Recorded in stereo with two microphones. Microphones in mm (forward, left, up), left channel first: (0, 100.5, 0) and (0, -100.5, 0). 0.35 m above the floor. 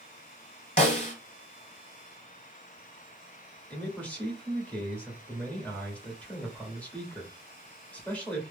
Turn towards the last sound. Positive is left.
turn(degrees=5)  # may be behind; listen again after turning